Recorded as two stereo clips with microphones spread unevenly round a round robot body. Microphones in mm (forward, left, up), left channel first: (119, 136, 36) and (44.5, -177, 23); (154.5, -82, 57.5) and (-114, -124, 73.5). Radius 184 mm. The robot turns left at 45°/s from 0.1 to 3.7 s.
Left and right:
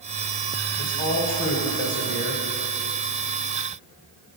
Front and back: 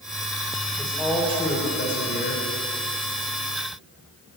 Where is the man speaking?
95° left, 1.6 m; by 2.5 s 20° left, 1.6 m.